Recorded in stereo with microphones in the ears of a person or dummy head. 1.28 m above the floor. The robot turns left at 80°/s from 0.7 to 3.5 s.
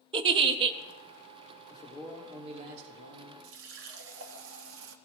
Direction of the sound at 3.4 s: 65° right (ahead or behind).